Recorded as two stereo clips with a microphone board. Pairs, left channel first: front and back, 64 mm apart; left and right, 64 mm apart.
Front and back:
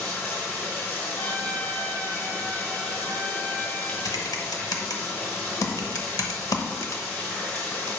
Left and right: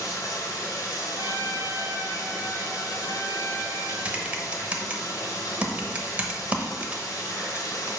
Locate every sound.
0.0 s running water: 60° left, 2.5 m
1.2 s a trumpet: 55° right, 1.1 m
4.0 s typing on a keyboard: 20° right, 0.8 m